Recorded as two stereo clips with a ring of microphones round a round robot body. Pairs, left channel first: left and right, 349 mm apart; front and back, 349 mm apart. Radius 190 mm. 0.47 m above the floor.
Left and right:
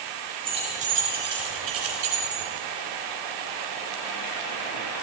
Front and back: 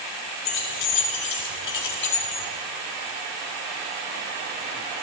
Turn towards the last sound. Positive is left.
turn(degrees=-50)